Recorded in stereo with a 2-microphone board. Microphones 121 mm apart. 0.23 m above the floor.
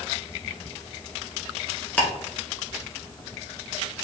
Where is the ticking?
15° left (ahead or behind), 1.0 m.